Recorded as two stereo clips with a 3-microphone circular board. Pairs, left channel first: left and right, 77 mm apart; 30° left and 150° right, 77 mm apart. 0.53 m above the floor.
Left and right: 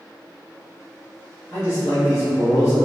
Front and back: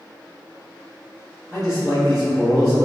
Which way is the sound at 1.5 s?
110° left.